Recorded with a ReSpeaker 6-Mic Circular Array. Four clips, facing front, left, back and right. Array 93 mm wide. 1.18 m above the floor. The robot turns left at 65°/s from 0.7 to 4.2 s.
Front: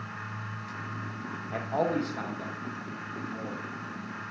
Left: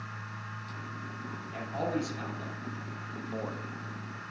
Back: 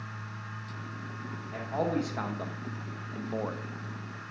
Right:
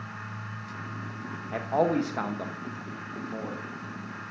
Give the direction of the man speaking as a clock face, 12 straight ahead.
2 o'clock.